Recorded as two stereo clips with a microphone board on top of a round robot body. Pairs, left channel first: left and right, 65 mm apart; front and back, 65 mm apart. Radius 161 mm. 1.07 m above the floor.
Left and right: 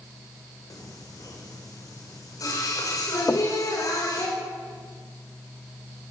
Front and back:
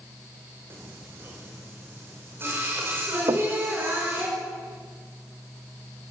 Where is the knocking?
145° left, 1.8 m.